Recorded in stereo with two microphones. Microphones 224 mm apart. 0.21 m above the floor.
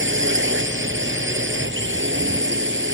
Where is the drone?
60° right (ahead or behind).